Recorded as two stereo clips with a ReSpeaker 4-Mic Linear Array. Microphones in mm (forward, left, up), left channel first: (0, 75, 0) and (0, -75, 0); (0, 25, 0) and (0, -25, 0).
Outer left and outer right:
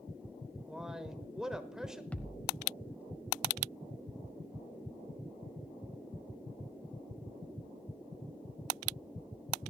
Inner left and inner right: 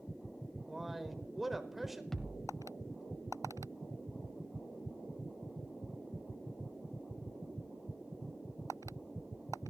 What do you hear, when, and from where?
0.7 s a man speaking: 5° right (ahead or behind), 1.0 m
2.1 s a thud: 10° left (ahead or behind), 0.8 m